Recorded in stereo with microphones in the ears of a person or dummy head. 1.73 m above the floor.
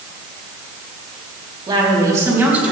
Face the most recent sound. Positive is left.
turn(degrees=-10)  # may be behind; listen again after turning